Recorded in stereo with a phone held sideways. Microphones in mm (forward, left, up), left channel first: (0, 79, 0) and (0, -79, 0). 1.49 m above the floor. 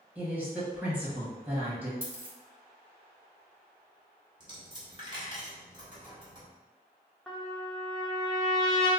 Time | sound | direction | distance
0.1 | a woman speaking | 10° right (ahead or behind) | 1.4 m
2.0 | a dropped coin | 15° right (ahead or behind) | 1.5 m
4.4 | a dropped coin | 30° right (ahead or behind) | 1.1 m
7.3 | a trumpet | centre (ahead or behind) | 0.6 m